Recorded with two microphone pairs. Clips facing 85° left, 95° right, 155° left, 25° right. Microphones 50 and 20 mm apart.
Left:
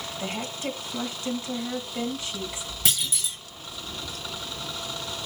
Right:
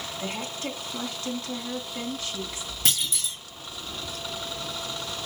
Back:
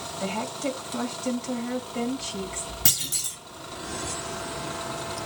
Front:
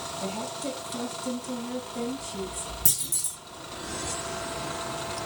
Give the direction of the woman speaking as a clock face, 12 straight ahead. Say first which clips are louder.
Left 2 dB, back 5 dB; 7 o'clock.